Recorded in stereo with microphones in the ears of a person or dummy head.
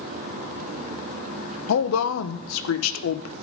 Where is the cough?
I don't hear a cough.